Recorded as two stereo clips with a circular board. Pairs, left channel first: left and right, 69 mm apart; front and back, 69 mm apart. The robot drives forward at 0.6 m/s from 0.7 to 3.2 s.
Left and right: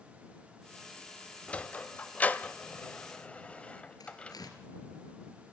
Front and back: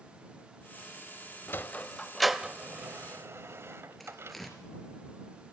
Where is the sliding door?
30° left, 0.8 m; by 4.4 s 155° left, 0.9 m.